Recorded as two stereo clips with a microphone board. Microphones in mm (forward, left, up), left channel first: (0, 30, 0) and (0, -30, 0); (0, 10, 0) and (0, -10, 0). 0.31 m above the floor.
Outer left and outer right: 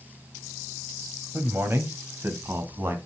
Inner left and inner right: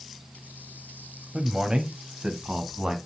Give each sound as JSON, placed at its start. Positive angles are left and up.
{"t": 1.3, "sound": "a man speaking", "side_deg": -40, "distance_m": 1.5}